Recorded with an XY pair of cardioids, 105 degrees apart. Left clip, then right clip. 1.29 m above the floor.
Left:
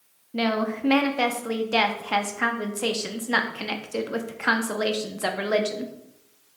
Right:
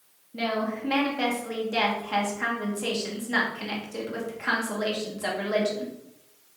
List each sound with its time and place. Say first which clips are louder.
0.3 s a woman speaking: left 3 dB; 55° left, 0.6 m